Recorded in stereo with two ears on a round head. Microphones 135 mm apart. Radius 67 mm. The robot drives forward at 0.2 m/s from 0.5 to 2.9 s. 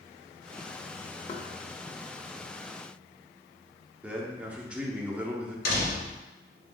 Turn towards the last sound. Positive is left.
turn(degrees=70)  # may be behind; listen again after turning